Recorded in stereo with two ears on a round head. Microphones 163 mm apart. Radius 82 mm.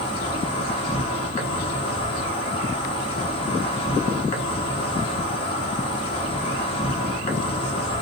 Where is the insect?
30° left (ahead or behind), 1.3 m.